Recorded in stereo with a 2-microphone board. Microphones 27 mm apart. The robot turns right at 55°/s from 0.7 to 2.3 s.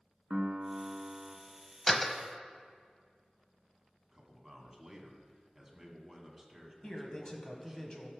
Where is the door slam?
10° left (ahead or behind), 0.8 m; by 2.1 s 5° left (ahead or behind), 0.8 m.